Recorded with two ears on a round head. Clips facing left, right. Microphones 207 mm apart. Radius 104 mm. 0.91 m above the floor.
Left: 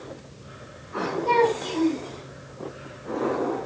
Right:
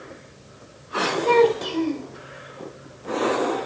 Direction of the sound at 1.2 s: 70° right (ahead or behind).